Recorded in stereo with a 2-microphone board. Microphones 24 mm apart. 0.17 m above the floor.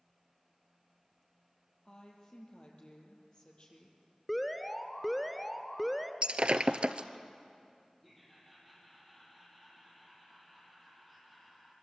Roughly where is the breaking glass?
Right.